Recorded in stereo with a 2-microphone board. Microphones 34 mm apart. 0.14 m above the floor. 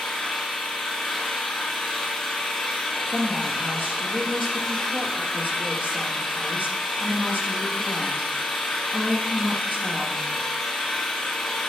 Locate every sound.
0.0 s an engine running: 5° left (ahead or behind), 2 m
3.1 s a woman speaking: 60° right (ahead or behind), 3 m